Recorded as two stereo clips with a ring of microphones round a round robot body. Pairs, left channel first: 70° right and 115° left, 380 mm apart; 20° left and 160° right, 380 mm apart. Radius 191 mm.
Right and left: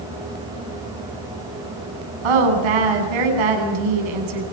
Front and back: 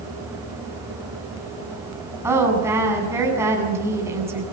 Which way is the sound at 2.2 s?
120° left.